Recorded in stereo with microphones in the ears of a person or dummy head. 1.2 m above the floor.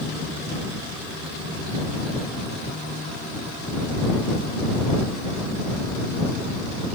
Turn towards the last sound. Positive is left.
No sound to turn to.